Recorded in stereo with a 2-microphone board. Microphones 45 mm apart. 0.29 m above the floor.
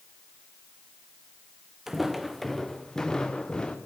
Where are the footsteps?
10° right (ahead or behind), 1.5 m; by 3.8 s 20° left (ahead or behind), 2.5 m.